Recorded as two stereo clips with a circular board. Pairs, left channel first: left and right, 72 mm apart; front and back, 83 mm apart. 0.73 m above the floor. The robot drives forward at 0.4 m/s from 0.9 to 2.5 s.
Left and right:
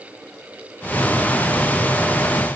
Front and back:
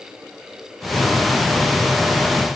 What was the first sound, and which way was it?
Only background noise.